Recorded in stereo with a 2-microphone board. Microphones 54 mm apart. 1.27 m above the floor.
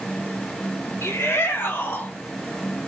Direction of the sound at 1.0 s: 55° left (ahead or behind).